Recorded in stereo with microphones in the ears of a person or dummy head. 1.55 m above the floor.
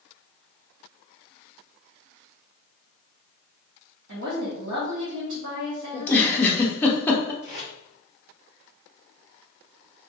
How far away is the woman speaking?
About 1.1 m.